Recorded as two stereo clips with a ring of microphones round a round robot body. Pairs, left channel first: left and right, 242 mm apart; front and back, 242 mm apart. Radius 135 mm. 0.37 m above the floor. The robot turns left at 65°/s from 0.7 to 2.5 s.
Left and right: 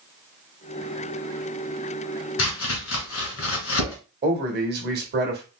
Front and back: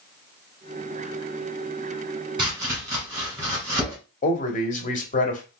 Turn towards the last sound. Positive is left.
turn(degrees=-50)